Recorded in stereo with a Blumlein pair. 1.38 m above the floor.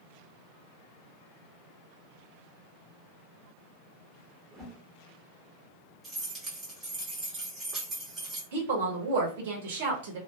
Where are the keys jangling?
15° right, 1.6 m.